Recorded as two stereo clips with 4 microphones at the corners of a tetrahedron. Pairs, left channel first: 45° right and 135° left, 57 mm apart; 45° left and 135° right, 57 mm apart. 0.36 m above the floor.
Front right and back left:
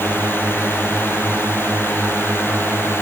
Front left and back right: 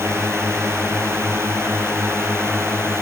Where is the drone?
95° right.